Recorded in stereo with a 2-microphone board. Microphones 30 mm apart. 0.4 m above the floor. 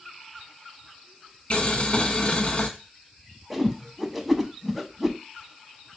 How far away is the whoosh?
About 0.5 m.